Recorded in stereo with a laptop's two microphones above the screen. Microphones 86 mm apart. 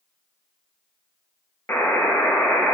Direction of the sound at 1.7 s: 20° left (ahead or behind).